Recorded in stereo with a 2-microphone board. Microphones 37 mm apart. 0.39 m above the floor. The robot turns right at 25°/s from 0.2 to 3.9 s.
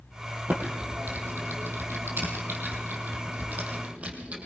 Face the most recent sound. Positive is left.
turn(degrees=-35)  # may be behind; listen again after turning